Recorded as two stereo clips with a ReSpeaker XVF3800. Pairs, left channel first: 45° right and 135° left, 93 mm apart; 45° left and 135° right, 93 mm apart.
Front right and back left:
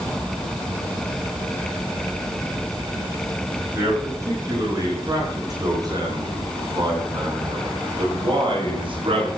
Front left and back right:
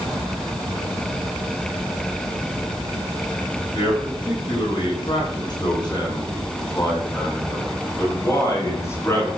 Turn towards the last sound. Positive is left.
turn(degrees=110)